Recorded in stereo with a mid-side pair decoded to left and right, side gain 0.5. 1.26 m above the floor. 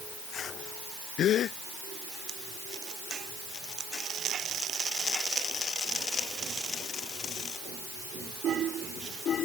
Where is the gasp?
60° left.